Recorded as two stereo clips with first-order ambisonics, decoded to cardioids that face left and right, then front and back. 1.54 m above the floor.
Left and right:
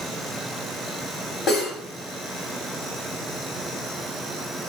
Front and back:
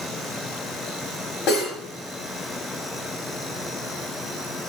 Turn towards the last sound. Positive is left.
turn(degrees=35)